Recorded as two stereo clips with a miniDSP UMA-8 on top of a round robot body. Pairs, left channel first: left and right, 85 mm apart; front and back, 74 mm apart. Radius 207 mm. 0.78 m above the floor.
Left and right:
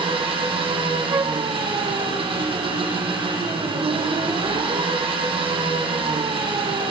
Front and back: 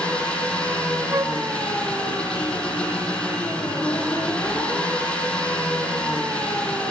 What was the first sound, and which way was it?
An engine running, 75° right.